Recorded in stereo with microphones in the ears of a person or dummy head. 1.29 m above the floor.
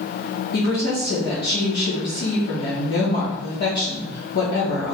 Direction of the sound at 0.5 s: 65° left (ahead or behind).